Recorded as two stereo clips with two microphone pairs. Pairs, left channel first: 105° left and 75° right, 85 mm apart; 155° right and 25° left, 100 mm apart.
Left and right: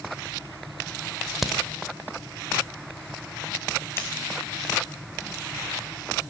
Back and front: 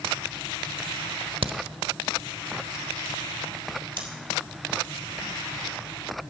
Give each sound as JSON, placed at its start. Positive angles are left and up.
{"t": 1.4, "sound": "a crack", "azimuth_deg": 15, "distance_m": 0.9}
{"t": 4.0, "sound": "scissors", "azimuth_deg": 50, "distance_m": 2.5}